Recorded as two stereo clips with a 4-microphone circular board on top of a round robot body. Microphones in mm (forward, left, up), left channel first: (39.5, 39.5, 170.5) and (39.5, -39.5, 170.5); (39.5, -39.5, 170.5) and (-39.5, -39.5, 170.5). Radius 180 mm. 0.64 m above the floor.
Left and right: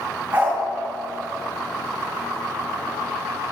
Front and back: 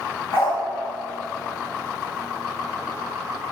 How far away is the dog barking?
About 5 m.